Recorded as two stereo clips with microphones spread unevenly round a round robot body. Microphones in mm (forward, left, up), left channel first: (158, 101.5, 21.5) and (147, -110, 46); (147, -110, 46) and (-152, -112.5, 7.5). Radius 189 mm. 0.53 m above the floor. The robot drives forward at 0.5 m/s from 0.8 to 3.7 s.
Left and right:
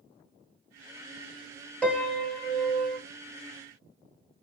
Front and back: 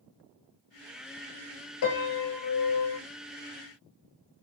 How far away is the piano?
About 1.2 m.